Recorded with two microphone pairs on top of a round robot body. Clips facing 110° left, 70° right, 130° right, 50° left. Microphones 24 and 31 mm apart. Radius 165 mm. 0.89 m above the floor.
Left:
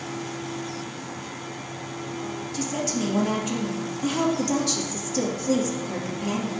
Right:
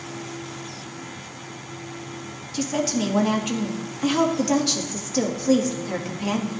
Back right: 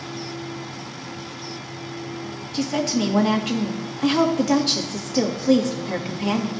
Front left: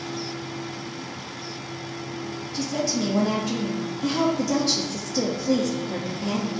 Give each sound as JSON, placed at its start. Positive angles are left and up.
{"t": 2.5, "sound": "a woman speaking", "azimuth_deg": -125, "distance_m": 2.0}